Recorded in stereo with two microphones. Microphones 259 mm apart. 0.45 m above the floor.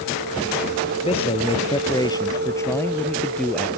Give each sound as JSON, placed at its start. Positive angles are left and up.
{"t": 1.0, "sound": "a man speaking", "side_deg": 20}